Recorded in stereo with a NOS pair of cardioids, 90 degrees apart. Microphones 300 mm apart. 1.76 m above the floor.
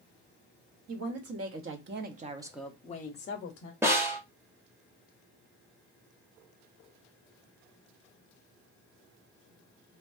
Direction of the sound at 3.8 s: 10° right.